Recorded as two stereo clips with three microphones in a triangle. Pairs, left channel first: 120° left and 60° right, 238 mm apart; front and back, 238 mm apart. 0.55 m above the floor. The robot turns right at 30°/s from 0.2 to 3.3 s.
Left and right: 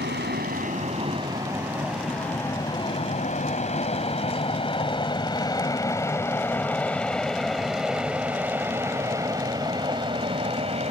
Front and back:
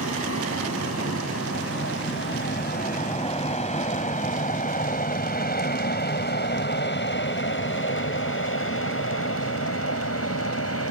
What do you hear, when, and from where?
0.0 s an aircraft: 15° right; by 10.9 s 5° left